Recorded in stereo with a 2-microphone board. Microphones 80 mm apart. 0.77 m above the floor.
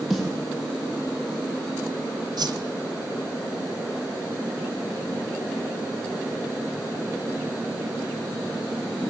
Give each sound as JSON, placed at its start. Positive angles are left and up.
{"t": 0.1, "sound": "a snare drum", "side_deg": -5, "distance_m": 6.5}
{"t": 2.4, "sound": "a whoosh", "side_deg": -60, "distance_m": 1.0}